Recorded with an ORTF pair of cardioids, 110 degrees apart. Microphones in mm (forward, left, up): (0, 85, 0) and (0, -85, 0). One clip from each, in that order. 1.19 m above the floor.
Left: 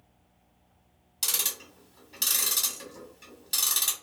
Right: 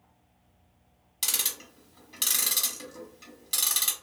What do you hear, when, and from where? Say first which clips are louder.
1.2 s ticking: even; 10° right, 1.2 m